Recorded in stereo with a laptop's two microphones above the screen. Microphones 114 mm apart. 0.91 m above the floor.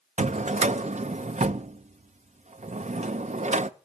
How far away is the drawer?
About 0.6 m.